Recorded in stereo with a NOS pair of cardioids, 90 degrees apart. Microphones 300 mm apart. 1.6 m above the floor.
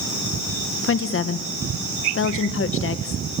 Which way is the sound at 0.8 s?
45° left.